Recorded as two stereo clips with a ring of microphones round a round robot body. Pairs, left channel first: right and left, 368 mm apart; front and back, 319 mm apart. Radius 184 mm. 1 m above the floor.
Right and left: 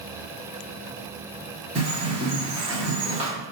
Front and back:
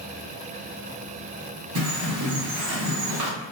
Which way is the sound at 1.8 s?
160° left.